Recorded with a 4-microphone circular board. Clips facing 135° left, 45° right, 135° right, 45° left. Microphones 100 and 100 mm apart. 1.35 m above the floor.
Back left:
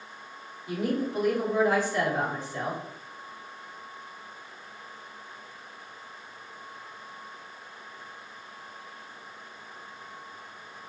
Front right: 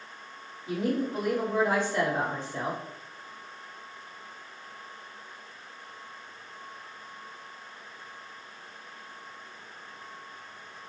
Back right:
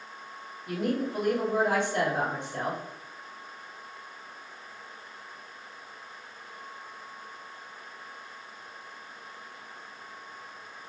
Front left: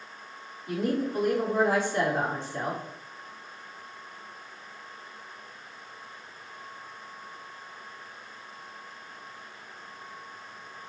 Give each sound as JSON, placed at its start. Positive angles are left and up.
{"t": 0.7, "sound": "a woman speaking", "azimuth_deg": -110, "distance_m": 1.5}